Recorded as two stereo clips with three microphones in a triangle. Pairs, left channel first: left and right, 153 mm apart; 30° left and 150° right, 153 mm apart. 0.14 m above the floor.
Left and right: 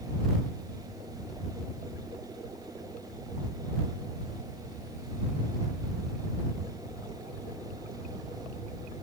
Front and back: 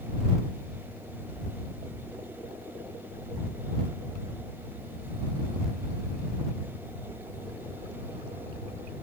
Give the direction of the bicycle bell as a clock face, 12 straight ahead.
I don't hear a bicycle bell.